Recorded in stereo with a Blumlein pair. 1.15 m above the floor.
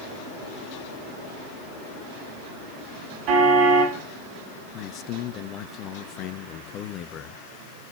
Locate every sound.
3.3 s a car horn: 40° right, 5.5 m
4.7 s a man speaking: 35° left, 1.3 m